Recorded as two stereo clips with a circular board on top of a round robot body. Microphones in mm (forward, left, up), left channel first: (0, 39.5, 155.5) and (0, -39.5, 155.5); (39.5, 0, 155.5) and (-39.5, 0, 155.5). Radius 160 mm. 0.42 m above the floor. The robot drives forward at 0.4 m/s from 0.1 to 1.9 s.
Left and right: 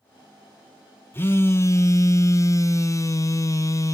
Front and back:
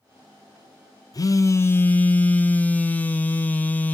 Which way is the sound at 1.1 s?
30° left.